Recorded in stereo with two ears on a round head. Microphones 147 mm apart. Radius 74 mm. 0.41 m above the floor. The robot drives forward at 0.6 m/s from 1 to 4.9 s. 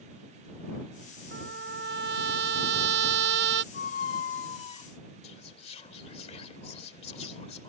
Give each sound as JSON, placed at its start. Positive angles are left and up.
{"t": 1.3, "sound": "a trumpet", "side_deg": -65}
{"t": 3.7, "sound": "a squeak", "side_deg": 70}
{"t": 5.2, "sound": "whispering", "side_deg": 40}